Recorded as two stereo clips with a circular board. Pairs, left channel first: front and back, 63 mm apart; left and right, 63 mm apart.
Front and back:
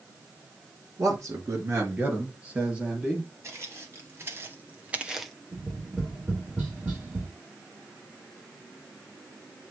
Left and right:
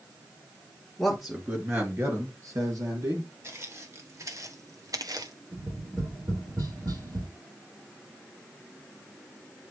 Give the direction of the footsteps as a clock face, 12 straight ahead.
4 o'clock.